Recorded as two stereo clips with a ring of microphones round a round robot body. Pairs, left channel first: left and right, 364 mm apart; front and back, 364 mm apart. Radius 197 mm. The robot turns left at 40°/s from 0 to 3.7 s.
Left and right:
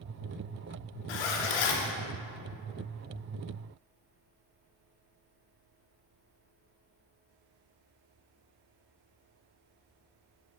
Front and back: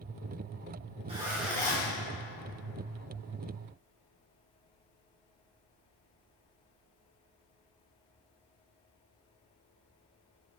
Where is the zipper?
105° left, 0.9 m; by 1.9 s 70° left, 0.9 m.